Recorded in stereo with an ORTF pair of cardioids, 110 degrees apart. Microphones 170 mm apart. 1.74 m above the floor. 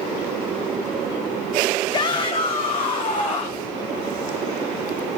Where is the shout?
25° left, 0.6 m; by 3.7 s 35° left, 2.5 m.